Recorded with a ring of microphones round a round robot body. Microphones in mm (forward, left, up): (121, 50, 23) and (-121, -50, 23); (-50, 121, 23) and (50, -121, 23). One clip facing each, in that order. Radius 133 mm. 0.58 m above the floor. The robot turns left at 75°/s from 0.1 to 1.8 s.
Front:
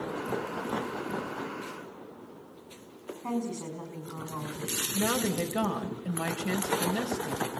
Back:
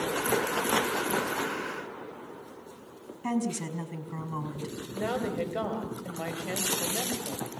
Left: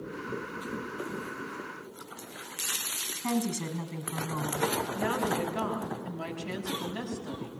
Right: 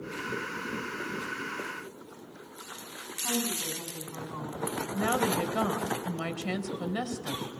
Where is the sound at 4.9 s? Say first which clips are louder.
Front 2 dB, right 5 dB; 45° right, 3.5 m.